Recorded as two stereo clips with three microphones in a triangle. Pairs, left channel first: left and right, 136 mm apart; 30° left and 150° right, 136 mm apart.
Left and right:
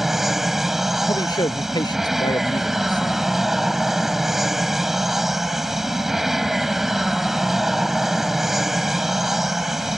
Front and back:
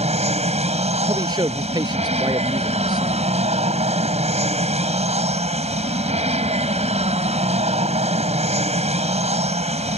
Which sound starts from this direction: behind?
An aircraft, at 0.0 s.